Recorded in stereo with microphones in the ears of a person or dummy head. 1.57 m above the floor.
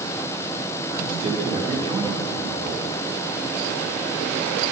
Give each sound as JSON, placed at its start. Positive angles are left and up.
{"t": 0.9, "sound": "a man speaking", "side_deg": -30, "distance_m": 5.0}